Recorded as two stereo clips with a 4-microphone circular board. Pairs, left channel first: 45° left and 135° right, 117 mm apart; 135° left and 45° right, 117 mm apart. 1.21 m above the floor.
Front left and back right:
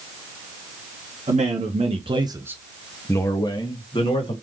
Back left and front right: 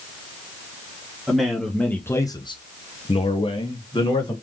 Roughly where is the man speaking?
Behind right.